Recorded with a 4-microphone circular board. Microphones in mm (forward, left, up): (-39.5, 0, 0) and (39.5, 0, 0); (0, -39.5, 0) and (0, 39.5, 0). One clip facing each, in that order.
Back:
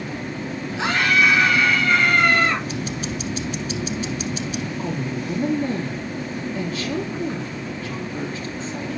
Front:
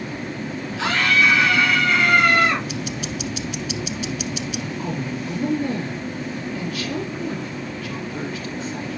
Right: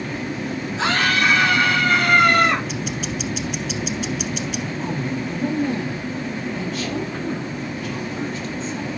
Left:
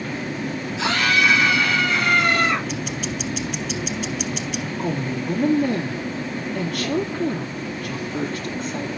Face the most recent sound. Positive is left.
turn(degrees=120)